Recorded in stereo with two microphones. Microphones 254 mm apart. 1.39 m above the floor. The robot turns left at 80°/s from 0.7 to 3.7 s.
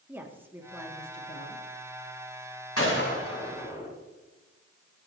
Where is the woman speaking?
170° right, 2.5 m; by 1.6 s 110° left, 2.5 m.